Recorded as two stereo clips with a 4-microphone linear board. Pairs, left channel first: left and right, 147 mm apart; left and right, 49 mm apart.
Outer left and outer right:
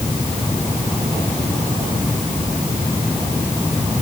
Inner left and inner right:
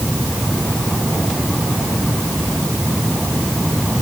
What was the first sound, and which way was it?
Only background noise.